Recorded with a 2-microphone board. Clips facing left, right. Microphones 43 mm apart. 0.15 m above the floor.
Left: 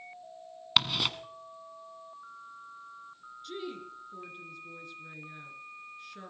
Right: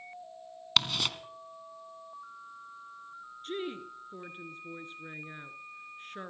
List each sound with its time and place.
0.8 s ticking: 10° left (ahead or behind), 1.4 m
3.4 s a woman speaking: 40° right (ahead or behind), 2.0 m